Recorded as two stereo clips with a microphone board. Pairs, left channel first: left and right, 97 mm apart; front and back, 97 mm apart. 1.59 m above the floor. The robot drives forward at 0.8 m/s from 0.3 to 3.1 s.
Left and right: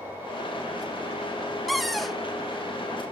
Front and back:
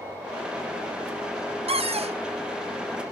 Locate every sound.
1.7 s a cupboard door: straight behind, 0.5 m